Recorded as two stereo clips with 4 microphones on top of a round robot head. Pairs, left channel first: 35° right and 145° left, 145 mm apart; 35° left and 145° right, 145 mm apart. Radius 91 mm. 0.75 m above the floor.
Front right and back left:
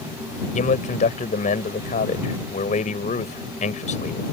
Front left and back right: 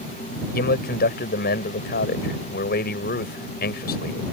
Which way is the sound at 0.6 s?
10° left.